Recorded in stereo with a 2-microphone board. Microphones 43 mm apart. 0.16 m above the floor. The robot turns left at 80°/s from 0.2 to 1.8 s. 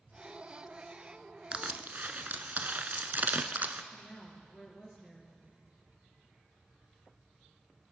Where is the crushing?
30° right (ahead or behind), 0.7 m; by 3.8 s 45° right (ahead or behind), 0.7 m.